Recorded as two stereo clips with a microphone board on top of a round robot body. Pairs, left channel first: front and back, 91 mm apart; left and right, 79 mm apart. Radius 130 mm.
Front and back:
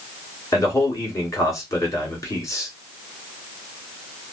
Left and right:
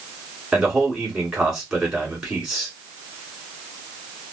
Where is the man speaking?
15° right, 1.7 m.